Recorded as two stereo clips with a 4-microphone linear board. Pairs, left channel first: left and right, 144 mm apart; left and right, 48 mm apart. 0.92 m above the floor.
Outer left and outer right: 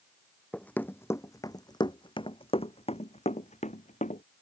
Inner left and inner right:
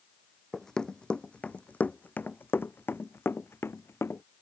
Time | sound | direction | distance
0.5 | running footsteps | 10° left (ahead or behind) | ?